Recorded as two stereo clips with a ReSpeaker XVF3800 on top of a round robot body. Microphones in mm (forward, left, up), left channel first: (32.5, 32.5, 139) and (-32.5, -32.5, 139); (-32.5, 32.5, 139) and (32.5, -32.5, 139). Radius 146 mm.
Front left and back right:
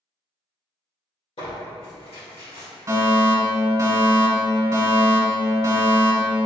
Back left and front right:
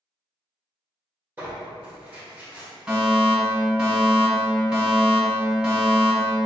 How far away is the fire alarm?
About 1.3 m.